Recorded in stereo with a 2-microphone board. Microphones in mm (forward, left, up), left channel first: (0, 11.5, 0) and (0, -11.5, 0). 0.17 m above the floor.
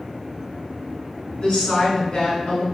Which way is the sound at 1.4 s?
40° left (ahead or behind).